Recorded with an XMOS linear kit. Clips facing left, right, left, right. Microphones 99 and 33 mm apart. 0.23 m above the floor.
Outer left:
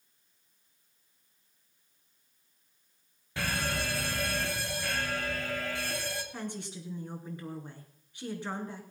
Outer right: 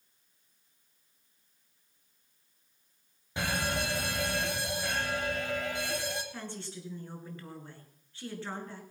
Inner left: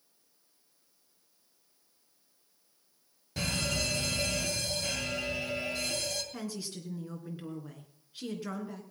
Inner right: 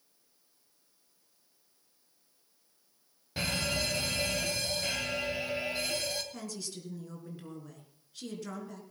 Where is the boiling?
No boiling in this recording.